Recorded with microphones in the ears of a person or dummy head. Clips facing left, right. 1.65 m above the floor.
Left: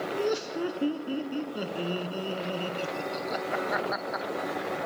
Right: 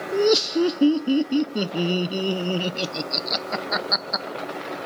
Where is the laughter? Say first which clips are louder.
Right 12 dB; 55° right (ahead or behind), 0.7 m.